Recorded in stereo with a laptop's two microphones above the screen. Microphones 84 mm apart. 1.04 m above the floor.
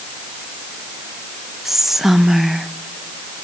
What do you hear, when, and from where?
1.6 s whispering: centre (ahead or behind), 0.8 m